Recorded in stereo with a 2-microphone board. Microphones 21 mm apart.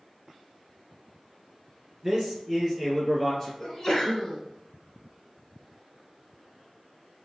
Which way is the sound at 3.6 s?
25° left (ahead or behind).